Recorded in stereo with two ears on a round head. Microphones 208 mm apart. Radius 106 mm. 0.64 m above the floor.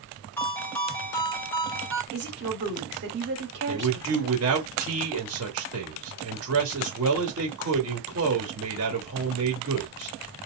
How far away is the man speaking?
About 1.6 m.